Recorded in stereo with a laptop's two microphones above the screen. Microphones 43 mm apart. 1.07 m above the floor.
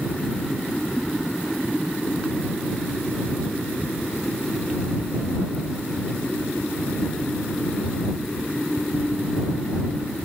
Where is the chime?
No chime in this recording.